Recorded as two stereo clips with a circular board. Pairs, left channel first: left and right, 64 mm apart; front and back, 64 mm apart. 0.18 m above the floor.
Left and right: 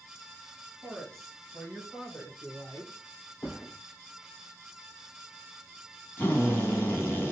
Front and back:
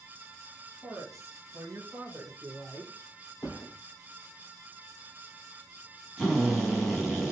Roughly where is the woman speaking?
Behind.